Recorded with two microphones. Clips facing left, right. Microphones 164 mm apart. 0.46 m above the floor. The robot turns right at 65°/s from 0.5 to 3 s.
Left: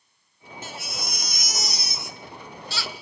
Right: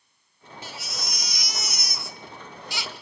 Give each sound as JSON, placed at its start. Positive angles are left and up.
{"t": 0.6, "sound": "a baby crying", "azimuth_deg": 65, "distance_m": 1.0}